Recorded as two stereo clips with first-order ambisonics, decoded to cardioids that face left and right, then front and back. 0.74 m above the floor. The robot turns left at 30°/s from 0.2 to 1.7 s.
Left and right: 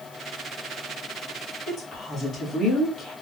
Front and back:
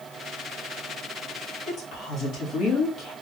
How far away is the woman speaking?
About 1.3 m.